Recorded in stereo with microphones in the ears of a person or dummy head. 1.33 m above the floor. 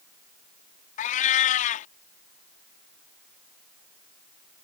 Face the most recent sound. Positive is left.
turn(degrees=40)  # may be behind; listen again after turning